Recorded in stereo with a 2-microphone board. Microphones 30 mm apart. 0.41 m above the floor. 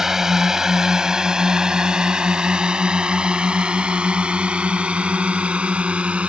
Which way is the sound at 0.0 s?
15° right (ahead or behind).